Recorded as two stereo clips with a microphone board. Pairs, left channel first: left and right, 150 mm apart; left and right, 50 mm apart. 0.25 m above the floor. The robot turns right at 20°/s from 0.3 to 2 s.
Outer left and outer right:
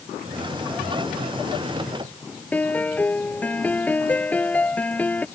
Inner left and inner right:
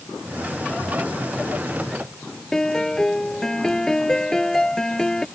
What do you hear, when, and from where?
2.5 s a piano: 10° left (ahead or behind)